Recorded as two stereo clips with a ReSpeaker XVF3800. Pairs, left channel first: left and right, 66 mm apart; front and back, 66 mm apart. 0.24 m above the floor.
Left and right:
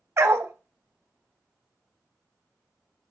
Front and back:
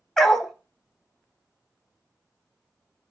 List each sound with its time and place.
0.2 s a dog barking: 80° right, 0.5 m